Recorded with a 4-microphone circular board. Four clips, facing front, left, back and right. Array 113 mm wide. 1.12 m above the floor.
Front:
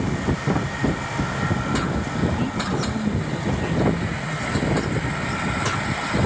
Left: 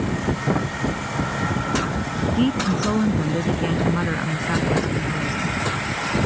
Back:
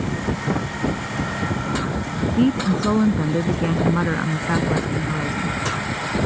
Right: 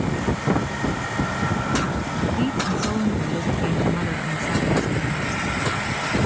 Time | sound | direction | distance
2.4 | a woman speaking | 165° left | ?